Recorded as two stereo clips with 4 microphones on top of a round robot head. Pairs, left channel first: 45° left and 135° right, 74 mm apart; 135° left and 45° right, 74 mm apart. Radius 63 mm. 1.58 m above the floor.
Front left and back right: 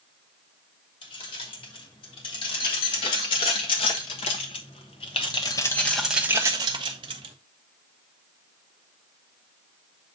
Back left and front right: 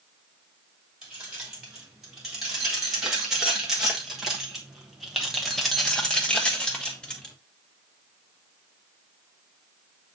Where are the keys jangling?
40° left, 2.5 m; by 7.3 s 145° right, 0.9 m.